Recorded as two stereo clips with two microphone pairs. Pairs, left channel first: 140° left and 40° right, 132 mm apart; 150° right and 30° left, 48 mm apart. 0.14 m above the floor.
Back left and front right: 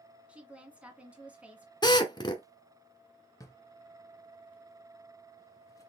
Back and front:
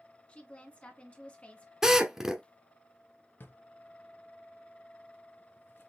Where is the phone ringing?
No phone ringing in this recording.